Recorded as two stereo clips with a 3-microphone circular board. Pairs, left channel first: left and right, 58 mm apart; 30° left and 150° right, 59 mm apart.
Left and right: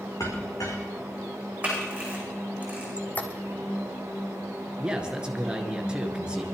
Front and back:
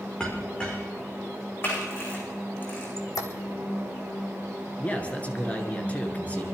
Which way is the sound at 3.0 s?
30° left.